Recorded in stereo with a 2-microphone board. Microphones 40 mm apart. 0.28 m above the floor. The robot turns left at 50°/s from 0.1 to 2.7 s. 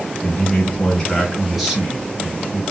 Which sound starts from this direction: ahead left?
A man speaking, at 0.2 s.